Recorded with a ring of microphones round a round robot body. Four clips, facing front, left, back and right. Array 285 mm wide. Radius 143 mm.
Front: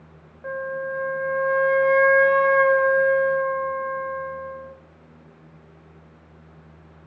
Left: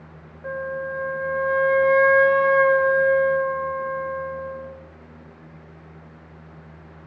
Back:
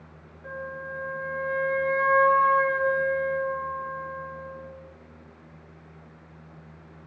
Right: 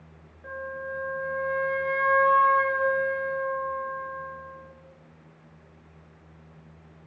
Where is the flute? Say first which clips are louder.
Left 7 dB, front 8 dB; 35° left, 2 m.